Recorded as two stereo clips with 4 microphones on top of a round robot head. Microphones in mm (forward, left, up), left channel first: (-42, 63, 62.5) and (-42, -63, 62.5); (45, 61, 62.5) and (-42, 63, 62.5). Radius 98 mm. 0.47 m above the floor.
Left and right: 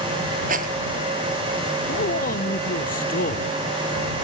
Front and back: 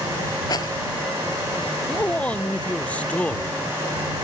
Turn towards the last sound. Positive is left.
turn(degrees=75)